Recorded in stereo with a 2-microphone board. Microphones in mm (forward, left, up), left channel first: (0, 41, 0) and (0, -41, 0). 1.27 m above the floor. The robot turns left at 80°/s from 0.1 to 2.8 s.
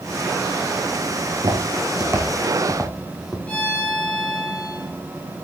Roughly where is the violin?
Centre.